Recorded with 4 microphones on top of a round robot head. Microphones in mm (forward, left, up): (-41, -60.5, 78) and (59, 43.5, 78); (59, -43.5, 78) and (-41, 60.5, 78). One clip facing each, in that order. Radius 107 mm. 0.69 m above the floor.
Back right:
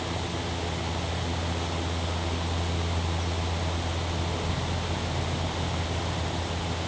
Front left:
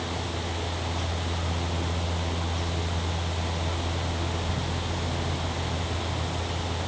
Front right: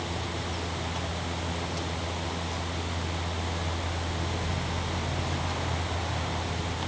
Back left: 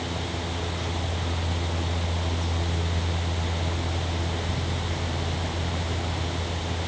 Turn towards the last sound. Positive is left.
No sound to turn to.